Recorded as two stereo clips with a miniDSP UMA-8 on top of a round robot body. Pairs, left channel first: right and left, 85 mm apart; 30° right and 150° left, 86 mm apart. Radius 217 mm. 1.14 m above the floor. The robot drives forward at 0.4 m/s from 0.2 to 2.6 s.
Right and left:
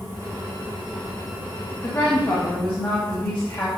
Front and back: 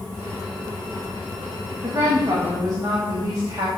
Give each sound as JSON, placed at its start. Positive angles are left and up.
{"t": 1.8, "sound": "a woman speaking", "azimuth_deg": -150, "distance_m": 1.5}